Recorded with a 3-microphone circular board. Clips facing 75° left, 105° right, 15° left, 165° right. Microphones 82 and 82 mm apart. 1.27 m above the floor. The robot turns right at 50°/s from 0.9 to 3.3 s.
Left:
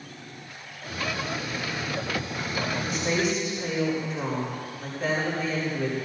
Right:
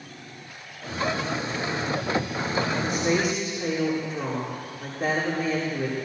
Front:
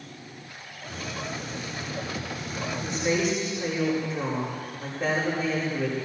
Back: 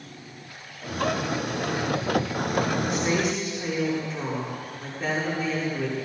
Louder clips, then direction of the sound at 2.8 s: Right 1 dB, back 1 dB; 95° right.